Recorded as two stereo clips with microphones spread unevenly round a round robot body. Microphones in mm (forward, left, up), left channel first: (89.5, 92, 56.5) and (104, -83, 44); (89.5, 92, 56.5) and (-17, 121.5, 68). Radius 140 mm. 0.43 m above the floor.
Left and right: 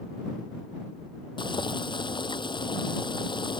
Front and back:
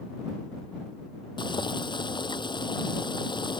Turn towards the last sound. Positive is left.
turn(degrees=30)